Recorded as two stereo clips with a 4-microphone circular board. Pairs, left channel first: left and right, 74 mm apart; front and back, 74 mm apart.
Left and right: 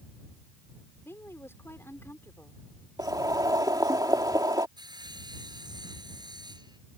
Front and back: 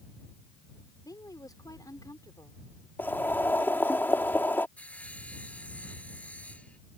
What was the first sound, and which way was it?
A woman speaking, 35° left.